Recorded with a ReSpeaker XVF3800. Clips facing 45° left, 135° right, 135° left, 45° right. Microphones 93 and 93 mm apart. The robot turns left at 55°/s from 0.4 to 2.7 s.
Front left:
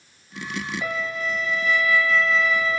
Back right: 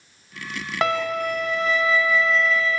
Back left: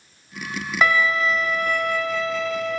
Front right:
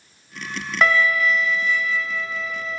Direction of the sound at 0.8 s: 135° right.